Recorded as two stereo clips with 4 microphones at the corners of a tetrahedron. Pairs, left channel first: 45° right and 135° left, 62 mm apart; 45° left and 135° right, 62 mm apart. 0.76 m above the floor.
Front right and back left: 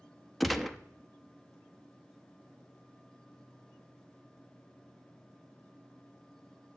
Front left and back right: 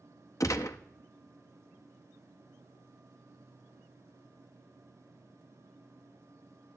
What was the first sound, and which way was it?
A gunshot, 45° left.